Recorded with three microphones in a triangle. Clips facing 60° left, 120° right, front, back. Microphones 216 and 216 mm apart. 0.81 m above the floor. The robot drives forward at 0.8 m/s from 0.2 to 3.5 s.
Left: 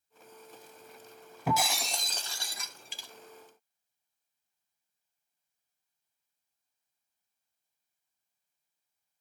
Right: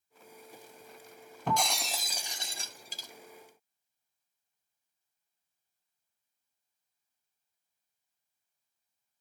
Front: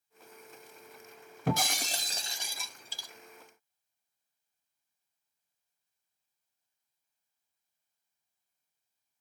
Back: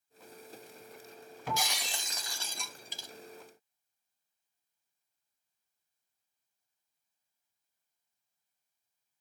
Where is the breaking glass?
20° right, 1.2 m; by 3.1 s 135° right, 0.8 m.